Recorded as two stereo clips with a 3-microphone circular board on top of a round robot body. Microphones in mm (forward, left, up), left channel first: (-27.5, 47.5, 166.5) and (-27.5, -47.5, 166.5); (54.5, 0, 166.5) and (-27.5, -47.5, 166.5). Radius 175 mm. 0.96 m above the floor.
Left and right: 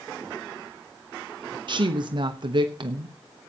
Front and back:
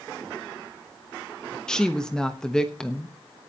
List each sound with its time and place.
1.7 s a woman speaking: 55° right, 1.0 m